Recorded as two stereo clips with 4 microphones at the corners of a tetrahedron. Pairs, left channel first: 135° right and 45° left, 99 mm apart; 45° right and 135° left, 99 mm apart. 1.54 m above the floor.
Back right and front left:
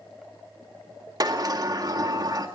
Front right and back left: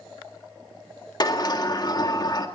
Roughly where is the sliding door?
Ahead.